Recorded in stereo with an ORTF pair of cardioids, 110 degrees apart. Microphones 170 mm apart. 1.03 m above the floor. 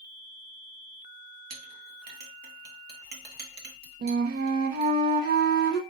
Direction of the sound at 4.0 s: 65° right.